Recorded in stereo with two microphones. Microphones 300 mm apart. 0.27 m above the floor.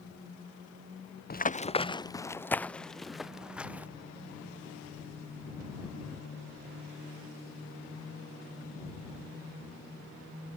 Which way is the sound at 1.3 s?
30° left (ahead or behind).